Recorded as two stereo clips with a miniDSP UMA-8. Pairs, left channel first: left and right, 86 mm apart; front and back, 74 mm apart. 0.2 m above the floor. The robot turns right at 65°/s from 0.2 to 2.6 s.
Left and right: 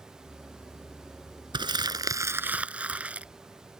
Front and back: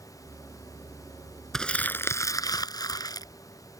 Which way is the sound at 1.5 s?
85° right.